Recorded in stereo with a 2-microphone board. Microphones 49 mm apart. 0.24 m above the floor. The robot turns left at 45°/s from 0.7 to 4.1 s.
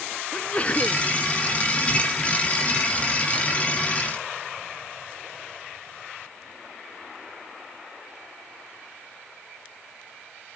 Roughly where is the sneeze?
Left.